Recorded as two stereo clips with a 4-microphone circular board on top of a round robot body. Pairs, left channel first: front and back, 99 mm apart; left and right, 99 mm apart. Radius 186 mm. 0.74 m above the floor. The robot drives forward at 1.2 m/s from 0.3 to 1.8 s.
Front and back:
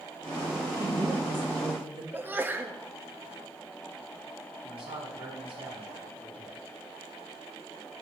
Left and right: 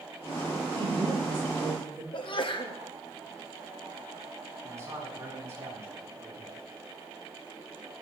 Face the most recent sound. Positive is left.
turn(degrees=-155)